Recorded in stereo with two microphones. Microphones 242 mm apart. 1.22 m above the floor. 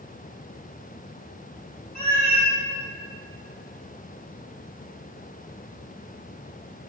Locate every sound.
1.9 s a cat meowing: 40° left (ahead or behind), 2 m